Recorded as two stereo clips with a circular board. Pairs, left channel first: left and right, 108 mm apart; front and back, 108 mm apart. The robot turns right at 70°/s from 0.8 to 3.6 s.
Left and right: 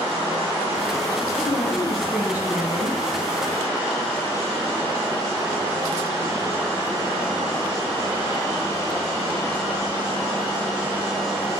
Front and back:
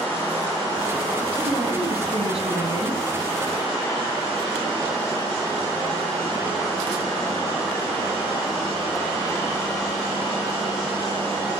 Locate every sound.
1.4 s a woman speaking: 130° left, 4 m; by 3.0 s 115° right, 4 m